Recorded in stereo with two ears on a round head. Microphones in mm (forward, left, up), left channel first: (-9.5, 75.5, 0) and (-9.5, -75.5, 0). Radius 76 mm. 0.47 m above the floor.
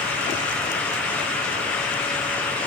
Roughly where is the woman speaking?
No woman speaking in this recording.